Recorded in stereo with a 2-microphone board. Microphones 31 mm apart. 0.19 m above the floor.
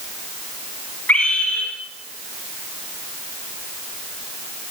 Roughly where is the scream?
Left.